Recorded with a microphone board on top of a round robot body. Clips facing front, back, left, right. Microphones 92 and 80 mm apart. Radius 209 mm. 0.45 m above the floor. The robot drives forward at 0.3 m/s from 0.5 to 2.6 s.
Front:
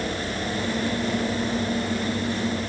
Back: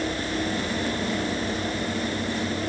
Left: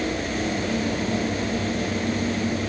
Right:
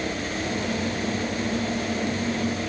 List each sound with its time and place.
Only background noise.